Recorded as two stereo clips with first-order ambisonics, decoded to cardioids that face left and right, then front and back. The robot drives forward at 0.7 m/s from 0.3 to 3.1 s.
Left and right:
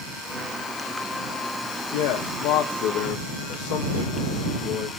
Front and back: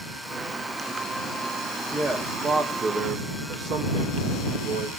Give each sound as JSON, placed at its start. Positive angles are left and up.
{"t": 1.9, "sound": "a man speaking", "azimuth_deg": 95, "distance_m": 1.2}